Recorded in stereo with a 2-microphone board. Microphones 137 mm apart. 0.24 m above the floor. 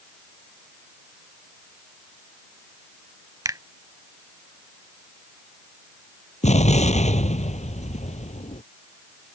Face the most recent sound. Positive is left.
turn(degrees=55)  # may be behind; listen again after turning